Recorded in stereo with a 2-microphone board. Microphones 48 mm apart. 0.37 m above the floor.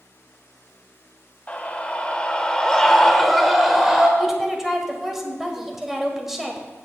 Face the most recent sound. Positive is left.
turn(degrees=-5)  # may be behind; listen again after turning